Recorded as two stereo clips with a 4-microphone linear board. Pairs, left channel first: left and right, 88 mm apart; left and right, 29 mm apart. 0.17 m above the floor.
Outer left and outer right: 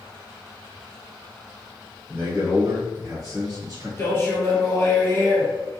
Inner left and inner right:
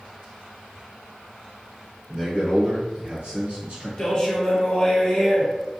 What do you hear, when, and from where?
2.1 s a man speaking: 30° right (ahead or behind), 1.9 m; by 3.9 s 50° right (ahead or behind), 1.9 m
4.0 s a man speaking: 30° left (ahead or behind), 1.4 m